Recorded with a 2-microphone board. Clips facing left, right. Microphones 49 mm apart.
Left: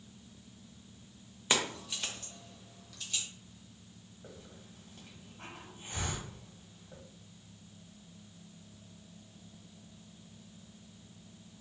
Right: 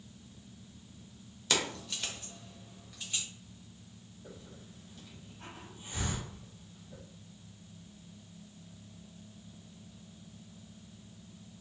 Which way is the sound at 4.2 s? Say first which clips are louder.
Right 1 dB; 40° left (ahead or behind).